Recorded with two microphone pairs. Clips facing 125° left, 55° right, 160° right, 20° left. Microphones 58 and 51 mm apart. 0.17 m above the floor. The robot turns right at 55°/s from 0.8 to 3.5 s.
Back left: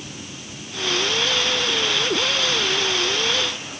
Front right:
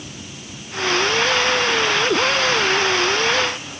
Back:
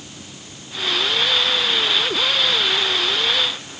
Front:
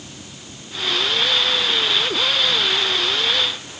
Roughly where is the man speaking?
I don't hear a man speaking.